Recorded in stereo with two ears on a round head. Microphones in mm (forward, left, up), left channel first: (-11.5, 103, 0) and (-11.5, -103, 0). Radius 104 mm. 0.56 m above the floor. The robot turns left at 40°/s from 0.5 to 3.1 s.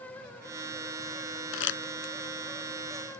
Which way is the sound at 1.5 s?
60° left (ahead or behind).